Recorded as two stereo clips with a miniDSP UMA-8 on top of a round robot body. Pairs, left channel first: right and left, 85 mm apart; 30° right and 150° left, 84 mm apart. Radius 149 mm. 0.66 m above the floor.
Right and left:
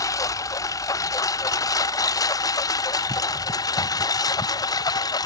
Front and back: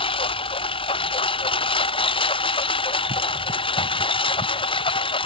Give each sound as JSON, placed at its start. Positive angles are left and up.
{"t": 0.0, "sound": "a lawn mower", "azimuth_deg": -40}